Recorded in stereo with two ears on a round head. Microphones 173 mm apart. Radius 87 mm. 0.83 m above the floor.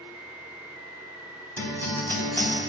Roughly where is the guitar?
Centre.